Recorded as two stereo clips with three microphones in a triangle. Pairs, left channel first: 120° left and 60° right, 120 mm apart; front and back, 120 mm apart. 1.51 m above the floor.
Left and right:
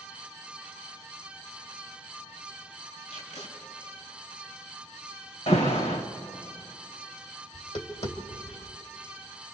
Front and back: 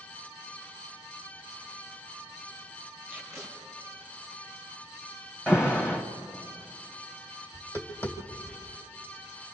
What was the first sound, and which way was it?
Tape being pulled, 110° left.